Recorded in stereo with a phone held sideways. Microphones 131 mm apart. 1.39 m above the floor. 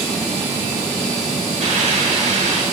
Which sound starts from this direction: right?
A hiss, at 1.6 s.